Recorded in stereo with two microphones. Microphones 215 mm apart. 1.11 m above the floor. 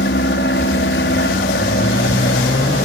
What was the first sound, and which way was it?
An aircraft, 60° left (ahead or behind).